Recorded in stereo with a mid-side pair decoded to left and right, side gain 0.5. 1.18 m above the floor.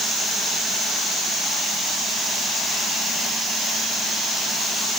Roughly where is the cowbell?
I don't hear a cowbell.